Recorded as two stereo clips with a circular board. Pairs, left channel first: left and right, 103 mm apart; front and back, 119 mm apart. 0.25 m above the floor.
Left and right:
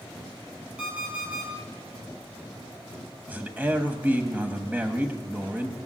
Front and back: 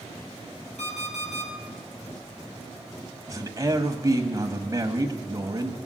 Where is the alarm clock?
10° right, 4 m.